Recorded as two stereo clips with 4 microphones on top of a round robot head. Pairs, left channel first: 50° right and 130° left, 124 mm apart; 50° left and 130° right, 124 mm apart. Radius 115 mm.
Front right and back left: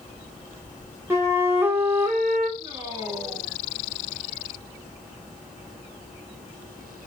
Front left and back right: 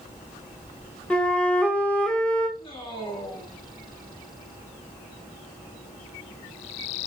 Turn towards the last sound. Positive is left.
turn(degrees=80)